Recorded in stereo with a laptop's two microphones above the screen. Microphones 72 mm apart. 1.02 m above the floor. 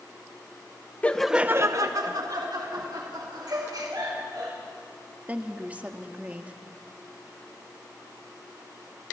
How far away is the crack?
I don't hear a crack.